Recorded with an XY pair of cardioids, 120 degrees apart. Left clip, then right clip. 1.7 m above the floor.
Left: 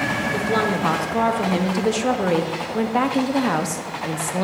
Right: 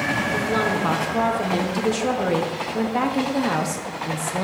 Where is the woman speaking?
15° left, 1.0 m.